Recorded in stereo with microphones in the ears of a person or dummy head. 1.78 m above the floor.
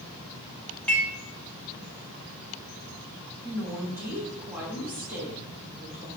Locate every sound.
0.9 s dishes clattering: centre (ahead or behind), 0.9 m
3.4 s a woman speaking: 10° right (ahead or behind), 1.4 m